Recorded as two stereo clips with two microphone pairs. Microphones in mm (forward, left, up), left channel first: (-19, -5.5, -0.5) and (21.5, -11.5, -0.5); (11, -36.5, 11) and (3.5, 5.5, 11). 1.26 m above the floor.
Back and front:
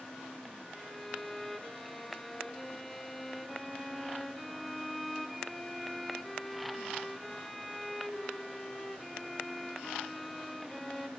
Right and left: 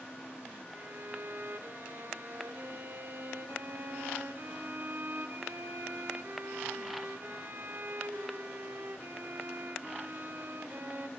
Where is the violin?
85° left, 1.6 m.